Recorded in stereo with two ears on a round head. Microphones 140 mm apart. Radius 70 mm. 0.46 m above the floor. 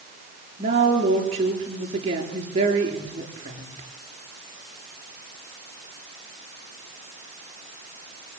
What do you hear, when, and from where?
0.6 s a woman speaking: 40° right (ahead or behind), 8.5 m